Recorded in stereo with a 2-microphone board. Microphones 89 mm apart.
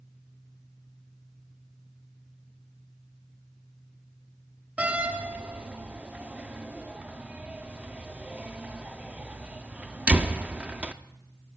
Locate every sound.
4.8 s a door slam: 15° right (ahead or behind), 0.6 m